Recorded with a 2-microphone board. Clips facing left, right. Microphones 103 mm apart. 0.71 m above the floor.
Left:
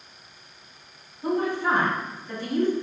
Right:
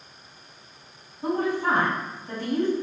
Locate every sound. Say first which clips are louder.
1.2 s a woman speaking: even; 50° right (ahead or behind), 1.6 m